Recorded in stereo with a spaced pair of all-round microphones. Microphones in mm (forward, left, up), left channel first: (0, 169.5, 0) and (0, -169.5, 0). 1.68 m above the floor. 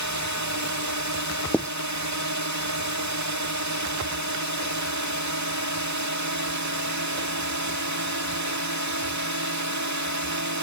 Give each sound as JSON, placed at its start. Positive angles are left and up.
{"t": 0.0, "sound": "a drone", "side_deg": -55}
{"t": 1.5, "sound": "writing", "side_deg": 5}